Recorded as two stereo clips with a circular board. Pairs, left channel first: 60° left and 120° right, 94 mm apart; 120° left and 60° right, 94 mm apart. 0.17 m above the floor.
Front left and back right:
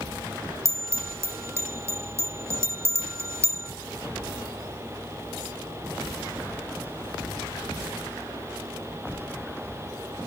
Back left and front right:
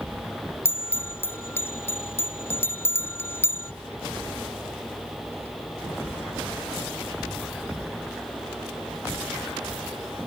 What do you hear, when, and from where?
0.7 s a bell: straight behind